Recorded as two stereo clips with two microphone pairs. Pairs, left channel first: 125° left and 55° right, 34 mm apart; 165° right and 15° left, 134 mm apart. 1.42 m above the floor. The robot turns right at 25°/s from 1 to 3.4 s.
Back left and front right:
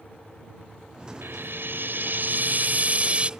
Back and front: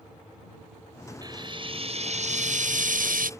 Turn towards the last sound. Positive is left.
turn(degrees=5)